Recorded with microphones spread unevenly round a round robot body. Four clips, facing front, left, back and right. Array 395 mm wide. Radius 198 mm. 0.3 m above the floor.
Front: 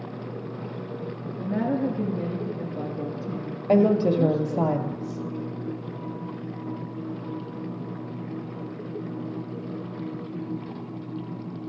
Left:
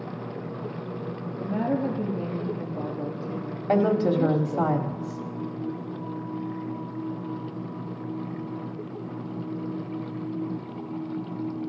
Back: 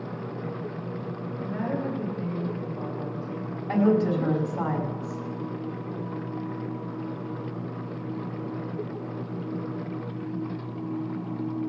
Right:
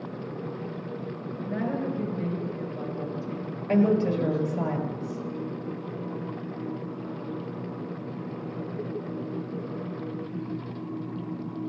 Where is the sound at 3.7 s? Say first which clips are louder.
Left 1 dB, front 3 dB; 30° left, 1.8 m.